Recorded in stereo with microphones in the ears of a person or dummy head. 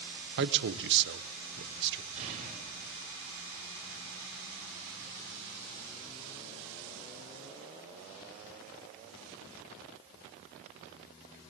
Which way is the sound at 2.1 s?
35° right (ahead or behind).